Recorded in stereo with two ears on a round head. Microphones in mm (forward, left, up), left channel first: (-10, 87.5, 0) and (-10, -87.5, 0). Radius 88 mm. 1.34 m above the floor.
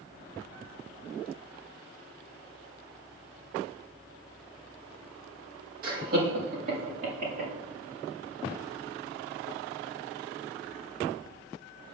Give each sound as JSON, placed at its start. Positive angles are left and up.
{"t": 5.8, "sound": "laughter", "side_deg": -50, "distance_m": 1.6}